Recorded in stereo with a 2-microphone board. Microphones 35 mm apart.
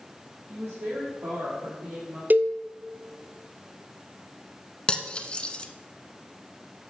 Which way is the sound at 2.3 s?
50° right (ahead or behind).